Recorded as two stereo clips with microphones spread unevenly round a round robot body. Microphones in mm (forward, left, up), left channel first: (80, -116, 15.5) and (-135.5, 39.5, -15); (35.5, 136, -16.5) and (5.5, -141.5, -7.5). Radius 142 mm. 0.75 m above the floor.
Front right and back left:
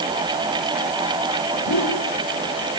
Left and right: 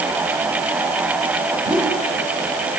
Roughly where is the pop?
No pop in this recording.